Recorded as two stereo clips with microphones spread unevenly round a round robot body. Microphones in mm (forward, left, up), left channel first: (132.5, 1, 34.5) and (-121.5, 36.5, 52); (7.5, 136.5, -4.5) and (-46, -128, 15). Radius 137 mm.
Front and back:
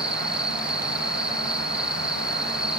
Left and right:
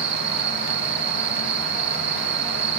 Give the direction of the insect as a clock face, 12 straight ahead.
3 o'clock.